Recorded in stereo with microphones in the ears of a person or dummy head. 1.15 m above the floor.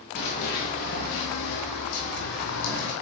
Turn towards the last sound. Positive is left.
turn(degrees=60)  # may be behind; listen again after turning